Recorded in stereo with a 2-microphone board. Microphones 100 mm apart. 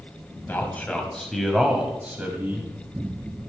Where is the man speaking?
20° left (ahead or behind), 1.5 m; by 2.7 s 20° right (ahead or behind), 1.6 m.